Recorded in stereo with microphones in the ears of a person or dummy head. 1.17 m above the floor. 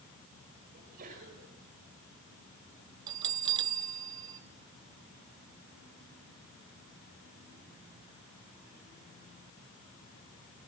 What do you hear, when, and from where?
0.7 s a sneeze: 55° right (ahead or behind), 6 m
3.1 s a bell: 35° right (ahead or behind), 0.8 m